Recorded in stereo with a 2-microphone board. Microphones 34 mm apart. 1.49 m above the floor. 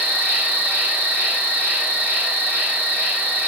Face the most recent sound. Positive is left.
turn(degrees=-65)  # may be behind; listen again after turning